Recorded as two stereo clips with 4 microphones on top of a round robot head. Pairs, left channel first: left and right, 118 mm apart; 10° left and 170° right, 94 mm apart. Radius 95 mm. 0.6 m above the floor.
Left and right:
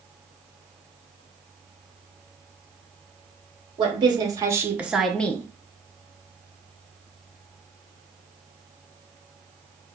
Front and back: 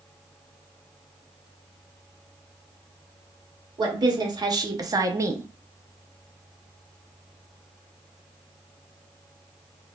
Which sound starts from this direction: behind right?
A woman speaking, at 3.8 s.